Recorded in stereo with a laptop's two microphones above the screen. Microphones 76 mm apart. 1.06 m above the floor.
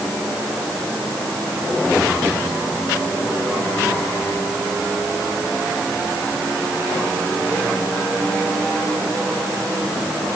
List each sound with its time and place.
Only background noise.